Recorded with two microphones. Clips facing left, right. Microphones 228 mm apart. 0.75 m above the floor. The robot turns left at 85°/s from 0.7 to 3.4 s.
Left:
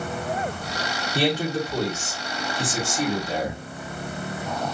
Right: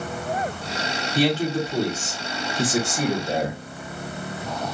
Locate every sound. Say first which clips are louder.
1.1 s a man speaking: right 2 dB; 30° left, 2 m; by 3.6 s 160° right, 2 m